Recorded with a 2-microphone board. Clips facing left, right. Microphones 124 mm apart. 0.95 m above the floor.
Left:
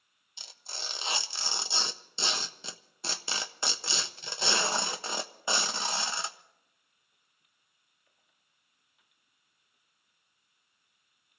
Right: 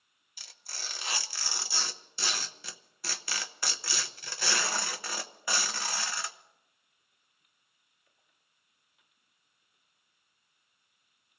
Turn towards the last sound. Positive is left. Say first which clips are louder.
# left 3 dB
turn(degrees=25)  # may be behind; listen again after turning